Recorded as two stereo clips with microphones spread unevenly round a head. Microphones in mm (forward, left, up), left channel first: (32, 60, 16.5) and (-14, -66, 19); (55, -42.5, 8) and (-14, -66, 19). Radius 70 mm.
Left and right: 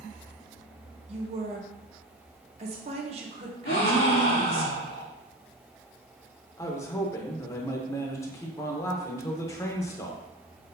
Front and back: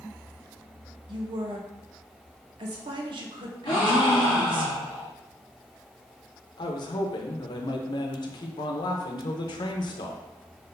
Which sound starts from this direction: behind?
A woman speaking, at 1.1 s.